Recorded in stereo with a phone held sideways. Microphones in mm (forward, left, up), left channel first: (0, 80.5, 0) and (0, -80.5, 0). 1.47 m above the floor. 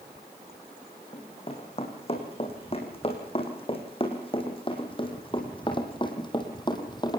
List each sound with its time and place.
1.1 s running footsteps: 40° left (ahead or behind), 6 m; by 7.2 s 25° left (ahead or behind), 3 m